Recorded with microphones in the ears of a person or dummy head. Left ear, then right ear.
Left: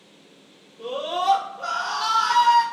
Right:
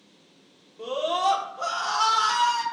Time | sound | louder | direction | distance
0.8 | a scream | right 1 dB | 70° right (ahead or behind) | 1.4 m